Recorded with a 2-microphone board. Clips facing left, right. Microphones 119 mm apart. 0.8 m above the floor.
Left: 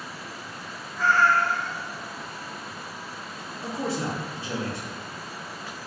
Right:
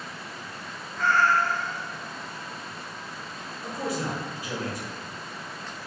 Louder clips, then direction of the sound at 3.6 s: Left 1 dB; 25° left (ahead or behind).